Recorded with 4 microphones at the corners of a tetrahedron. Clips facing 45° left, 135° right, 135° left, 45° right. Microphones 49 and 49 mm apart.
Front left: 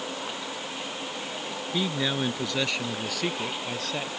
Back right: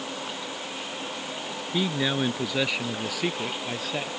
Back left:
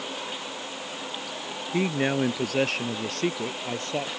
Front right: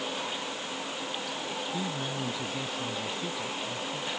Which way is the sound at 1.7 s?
145° left.